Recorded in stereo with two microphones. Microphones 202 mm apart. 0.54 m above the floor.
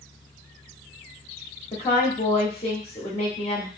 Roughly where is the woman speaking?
Left.